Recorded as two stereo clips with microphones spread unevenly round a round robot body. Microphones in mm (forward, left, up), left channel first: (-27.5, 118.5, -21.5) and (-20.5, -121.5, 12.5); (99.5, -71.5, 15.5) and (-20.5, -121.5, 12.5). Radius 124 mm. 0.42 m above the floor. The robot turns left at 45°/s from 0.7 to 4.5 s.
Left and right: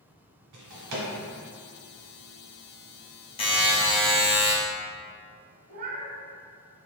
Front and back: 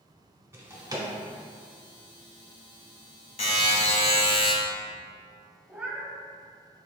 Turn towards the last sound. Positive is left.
turn(degrees=-80)